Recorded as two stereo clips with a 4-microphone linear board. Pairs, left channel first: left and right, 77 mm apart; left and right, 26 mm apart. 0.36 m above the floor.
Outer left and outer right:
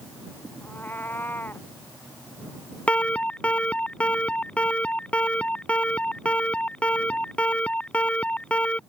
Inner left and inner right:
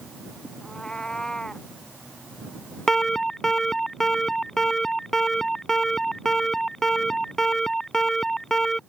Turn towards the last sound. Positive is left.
turn(degrees=15)  # may be behind; listen again after turning